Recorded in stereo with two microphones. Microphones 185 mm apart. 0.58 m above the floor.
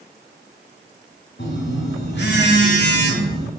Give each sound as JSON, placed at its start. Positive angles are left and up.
{"t": 1.4, "sound": "a phone buzzing", "side_deg": 70, "distance_m": 1.5}